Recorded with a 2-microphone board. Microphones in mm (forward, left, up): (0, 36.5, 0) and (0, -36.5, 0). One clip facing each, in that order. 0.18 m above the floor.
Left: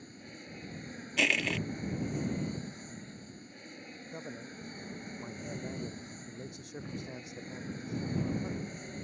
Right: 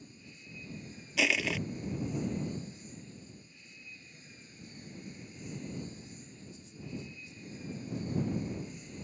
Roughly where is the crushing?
Centre.